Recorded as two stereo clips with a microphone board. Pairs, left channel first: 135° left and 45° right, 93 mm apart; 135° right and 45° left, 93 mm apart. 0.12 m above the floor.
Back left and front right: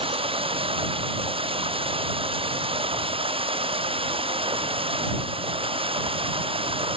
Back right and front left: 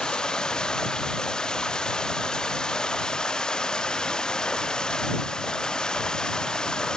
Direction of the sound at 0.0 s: 50° right.